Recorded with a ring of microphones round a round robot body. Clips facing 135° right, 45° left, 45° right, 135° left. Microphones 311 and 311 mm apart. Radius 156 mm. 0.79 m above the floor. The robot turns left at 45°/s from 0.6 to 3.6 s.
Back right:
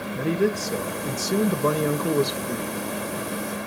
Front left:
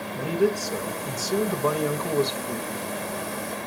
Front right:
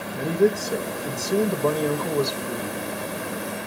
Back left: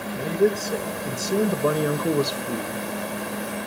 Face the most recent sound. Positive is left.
turn(degrees=115)